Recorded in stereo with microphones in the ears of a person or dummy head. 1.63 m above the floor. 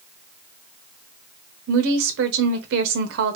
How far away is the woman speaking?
About 0.8 m.